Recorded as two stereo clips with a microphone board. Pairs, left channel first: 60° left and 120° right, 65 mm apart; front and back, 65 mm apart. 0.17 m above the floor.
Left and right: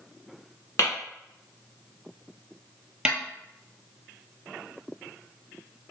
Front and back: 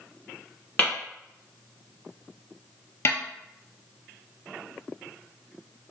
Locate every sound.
0.8 s tapping: 55° left, 1.4 m
3.0 s a snare drum: 45° right, 0.6 m